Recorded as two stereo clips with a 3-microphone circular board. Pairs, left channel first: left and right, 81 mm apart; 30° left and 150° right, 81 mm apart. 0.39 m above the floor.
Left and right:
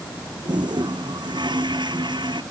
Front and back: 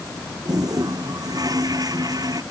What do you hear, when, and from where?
0.5 s a toilet flushing: 110° right